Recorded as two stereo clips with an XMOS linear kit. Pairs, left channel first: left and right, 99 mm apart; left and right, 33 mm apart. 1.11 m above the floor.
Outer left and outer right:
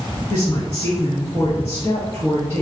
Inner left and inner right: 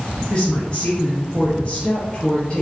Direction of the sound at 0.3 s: 40° left (ahead or behind).